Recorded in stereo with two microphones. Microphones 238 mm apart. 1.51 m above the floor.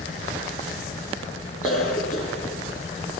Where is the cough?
70° left (ahead or behind), 3 m.